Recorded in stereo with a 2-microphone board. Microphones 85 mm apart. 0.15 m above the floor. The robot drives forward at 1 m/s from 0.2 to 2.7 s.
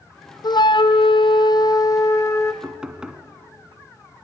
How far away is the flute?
About 1.1 m.